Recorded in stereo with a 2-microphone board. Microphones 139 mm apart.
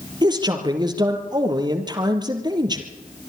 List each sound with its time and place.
0.2 s a man speaking: 30° right (ahead or behind), 2.5 m